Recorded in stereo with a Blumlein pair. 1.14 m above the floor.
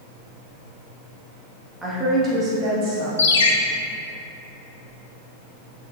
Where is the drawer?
No drawer in this recording.